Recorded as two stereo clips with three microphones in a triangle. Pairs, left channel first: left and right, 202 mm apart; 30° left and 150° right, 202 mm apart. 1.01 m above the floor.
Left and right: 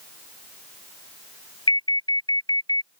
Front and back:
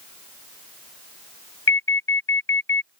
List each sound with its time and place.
1.7 s an alarm: 20° left